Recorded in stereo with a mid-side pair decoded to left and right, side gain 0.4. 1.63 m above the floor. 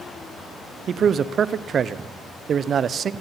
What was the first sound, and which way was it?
A man speaking, 55° right.